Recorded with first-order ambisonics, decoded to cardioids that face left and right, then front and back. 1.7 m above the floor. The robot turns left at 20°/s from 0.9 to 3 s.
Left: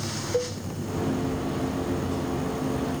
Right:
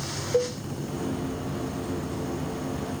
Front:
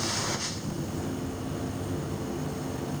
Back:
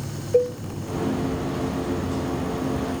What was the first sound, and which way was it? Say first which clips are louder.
A cowbell: right 3 dB, back 14 dB; 170° right.